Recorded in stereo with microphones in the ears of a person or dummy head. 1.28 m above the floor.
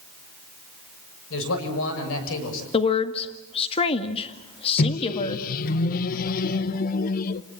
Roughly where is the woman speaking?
Left.